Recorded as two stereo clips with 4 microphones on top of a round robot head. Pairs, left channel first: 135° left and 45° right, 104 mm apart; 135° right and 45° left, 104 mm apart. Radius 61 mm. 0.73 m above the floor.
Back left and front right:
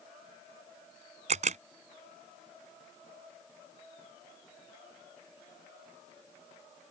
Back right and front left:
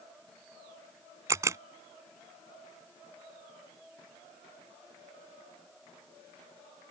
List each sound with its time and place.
1.3 s a camera shutter: 20° right